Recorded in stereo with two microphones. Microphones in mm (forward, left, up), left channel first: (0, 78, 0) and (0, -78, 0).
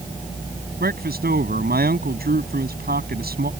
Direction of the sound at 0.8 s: 85° right.